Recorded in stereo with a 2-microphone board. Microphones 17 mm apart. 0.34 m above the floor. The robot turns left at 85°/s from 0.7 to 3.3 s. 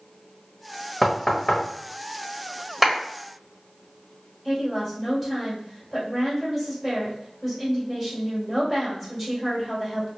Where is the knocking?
15° left (ahead or behind), 0.7 m; by 1.6 s 40° left (ahead or behind), 0.7 m.